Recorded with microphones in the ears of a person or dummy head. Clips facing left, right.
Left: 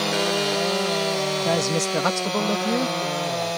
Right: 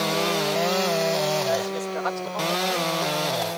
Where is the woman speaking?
55° left (ahead or behind); by 3.0 s 65° left (ahead or behind).